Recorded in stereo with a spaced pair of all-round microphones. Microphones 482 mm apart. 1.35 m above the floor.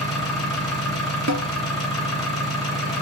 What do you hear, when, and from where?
0.0 s an engine running: 10° left (ahead or behind), 2.5 m
1.3 s a snare drum: 35° right (ahead or behind), 0.7 m